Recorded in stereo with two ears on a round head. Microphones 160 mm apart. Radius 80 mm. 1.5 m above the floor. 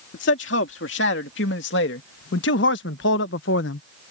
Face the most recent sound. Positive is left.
turn(degrees=75)  # may be behind; listen again after turning